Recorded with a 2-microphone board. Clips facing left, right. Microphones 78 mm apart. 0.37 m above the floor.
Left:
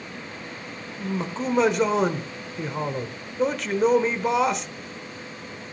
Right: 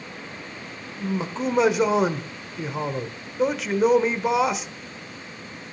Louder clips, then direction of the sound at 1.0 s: Right 2 dB; 5° right (ahead or behind).